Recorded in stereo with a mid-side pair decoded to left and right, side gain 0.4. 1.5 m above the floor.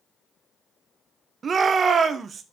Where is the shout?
50° right, 1.1 m.